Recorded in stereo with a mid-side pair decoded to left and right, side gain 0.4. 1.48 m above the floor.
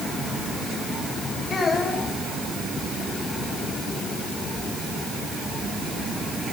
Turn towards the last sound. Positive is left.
turn(degrees=55)